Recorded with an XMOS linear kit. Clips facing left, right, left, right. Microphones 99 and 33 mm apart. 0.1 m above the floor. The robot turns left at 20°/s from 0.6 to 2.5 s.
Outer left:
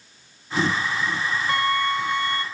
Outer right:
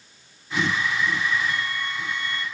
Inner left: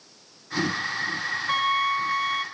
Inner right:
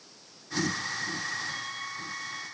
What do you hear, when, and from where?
1.5 s a flute: 70° left (ahead or behind), 0.7 m; by 2.5 s 55° left (ahead or behind), 0.7 m